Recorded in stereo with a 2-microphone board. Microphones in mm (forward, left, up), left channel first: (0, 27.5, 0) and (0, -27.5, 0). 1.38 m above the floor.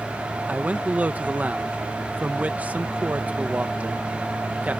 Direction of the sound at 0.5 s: 25° right (ahead or behind).